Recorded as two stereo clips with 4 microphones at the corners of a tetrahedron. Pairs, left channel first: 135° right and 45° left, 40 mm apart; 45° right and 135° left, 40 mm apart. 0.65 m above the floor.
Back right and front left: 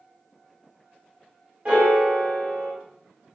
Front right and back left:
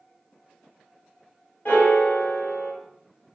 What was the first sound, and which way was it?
A piano, 10° right.